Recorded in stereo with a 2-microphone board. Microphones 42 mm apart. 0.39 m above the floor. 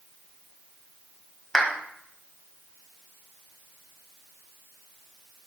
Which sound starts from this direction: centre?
A clap, at 1.5 s.